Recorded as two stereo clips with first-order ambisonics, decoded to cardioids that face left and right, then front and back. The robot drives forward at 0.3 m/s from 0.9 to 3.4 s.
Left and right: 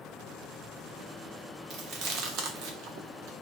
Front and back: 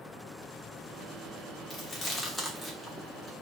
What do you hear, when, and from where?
1.7 s chewing: 65° right, 0.7 m; by 3.3 s 110° right, 0.7 m